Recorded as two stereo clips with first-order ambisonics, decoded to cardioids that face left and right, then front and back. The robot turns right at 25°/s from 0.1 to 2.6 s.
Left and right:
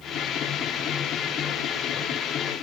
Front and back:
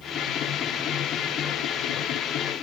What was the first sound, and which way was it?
Only background noise.